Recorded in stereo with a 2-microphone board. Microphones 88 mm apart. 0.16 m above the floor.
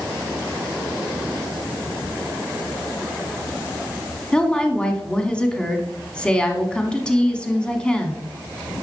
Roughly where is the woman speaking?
Centre.